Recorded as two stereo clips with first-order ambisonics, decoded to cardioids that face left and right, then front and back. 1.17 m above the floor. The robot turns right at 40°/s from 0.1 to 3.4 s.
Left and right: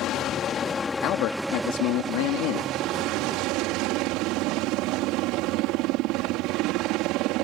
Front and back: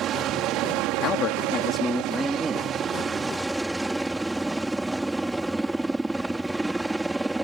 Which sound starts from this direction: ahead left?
A man speaking, at 1.0 s.